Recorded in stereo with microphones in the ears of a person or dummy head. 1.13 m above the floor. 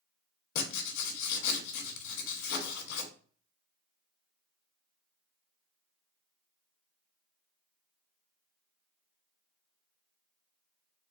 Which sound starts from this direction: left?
Writing, at 0.6 s.